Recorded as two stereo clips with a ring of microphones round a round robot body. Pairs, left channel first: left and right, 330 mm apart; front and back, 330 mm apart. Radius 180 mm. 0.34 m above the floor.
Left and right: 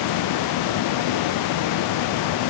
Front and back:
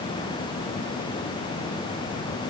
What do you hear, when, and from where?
Only background noise.